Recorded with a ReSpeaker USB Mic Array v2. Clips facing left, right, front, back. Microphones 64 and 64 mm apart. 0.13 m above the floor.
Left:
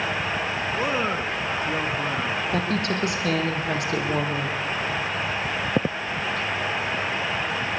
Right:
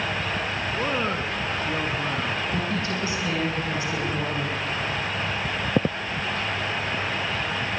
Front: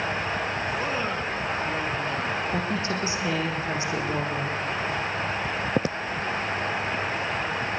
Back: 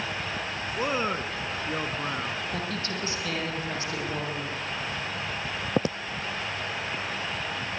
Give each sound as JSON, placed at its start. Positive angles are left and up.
{"t": 0.8, "sound": "a man speaking", "azimuth_deg": 160, "distance_m": 1.2}
{"t": 2.5, "sound": "a woman speaking", "azimuth_deg": 70, "distance_m": 6.0}